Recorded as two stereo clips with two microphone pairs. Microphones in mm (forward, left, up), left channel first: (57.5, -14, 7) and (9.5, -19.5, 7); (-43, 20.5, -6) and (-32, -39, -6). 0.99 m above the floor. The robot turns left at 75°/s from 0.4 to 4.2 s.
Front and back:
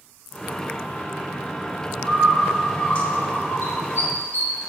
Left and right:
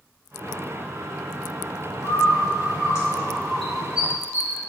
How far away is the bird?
About 1.9 m.